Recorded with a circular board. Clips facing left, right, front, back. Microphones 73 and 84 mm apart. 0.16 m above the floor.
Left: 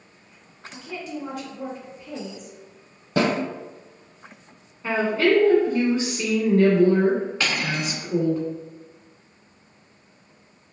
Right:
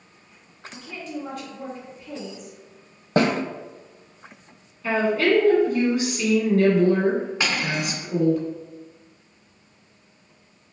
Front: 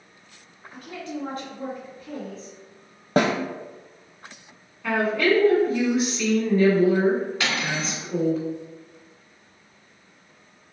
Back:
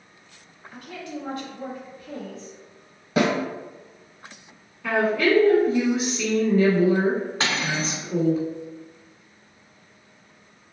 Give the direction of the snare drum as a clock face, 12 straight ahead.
1 o'clock.